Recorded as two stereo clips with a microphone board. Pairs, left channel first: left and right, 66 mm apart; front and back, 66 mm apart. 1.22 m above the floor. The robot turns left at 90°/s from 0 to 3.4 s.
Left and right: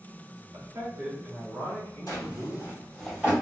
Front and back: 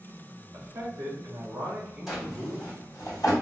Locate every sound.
0.5 s a man speaking: 125° right, 1.8 m; by 2.8 s 30° left, 1.8 m
2.1 s a drawer: 90° left, 2.0 m; by 3.3 s 20° right, 2.0 m